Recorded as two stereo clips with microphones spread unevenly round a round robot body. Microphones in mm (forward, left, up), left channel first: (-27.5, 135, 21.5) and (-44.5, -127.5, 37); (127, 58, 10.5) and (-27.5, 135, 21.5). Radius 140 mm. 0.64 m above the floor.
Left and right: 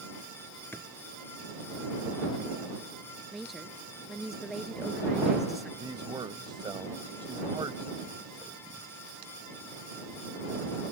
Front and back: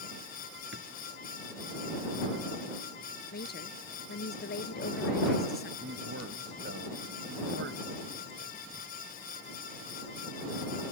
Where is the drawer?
170° left.